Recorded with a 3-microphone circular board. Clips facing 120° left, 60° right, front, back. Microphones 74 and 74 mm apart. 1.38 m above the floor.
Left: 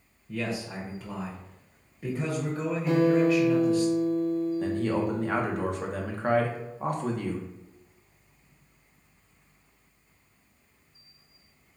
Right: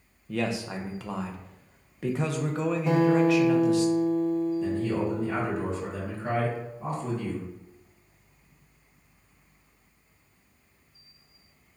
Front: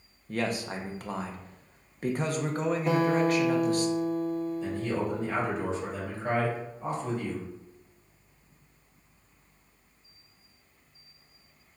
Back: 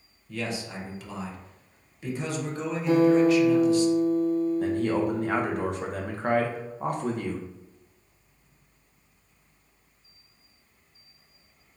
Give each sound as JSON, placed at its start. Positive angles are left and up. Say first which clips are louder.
{"t": 0.3, "sound": "a man speaking", "louder": "right 3 dB, front 2 dB", "azimuth_deg": -45, "distance_m": 0.7}
{"t": 2.9, "sound": "a guitar", "louder": "even, back 7 dB", "azimuth_deg": -35, "distance_m": 1.5}
{"t": 4.6, "sound": "a man speaking", "louder": "even, back 5 dB", "azimuth_deg": 150, "distance_m": 0.9}